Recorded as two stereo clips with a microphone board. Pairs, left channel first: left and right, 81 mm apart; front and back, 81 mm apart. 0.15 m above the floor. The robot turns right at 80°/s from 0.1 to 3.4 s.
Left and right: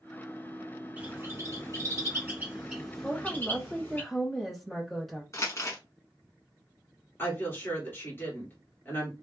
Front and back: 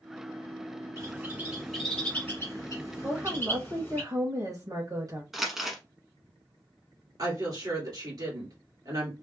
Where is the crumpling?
95° left, 1.2 m.